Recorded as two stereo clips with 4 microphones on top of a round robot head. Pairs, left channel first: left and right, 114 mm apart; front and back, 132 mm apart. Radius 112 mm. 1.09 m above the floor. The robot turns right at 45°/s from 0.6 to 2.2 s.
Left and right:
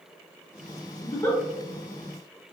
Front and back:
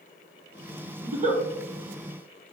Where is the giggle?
145° left, 0.9 m; by 1.4 s 165° left, 0.9 m.